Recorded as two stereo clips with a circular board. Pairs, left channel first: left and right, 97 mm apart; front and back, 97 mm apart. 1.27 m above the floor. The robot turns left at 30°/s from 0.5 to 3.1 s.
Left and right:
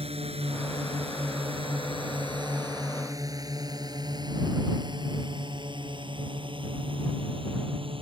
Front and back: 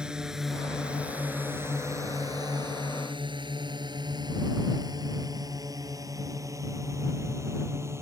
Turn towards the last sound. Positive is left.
turn(degrees=-115)